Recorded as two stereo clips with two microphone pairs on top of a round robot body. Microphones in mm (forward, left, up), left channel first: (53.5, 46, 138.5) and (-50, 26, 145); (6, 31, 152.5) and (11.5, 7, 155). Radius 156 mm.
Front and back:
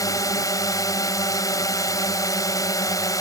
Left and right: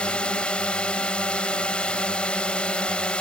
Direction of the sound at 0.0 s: 65° left.